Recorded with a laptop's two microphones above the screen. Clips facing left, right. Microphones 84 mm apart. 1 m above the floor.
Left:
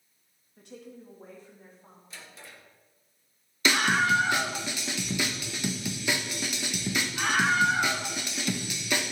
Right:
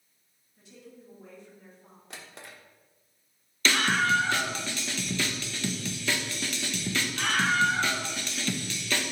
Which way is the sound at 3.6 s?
15° left (ahead or behind).